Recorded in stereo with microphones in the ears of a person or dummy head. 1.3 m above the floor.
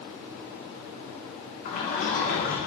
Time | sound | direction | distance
1.6 | a sliding door | 45° left (ahead or behind) | 0.8 m